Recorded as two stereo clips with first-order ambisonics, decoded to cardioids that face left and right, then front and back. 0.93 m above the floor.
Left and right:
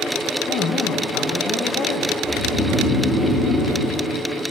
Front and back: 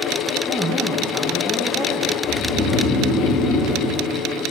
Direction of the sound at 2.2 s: 20° left.